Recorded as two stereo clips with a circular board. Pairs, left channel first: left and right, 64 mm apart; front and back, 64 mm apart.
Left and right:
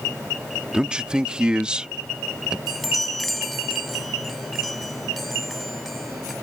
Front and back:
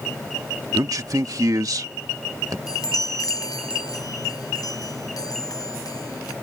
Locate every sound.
0.7 s a man speaking: 165° right
2.7 s a chime: straight ahead